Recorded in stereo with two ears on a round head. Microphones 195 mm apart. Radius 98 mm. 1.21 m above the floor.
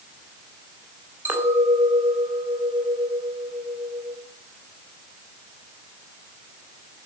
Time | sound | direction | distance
1.2 | a clink | 10° right (ahead or behind) | 3 m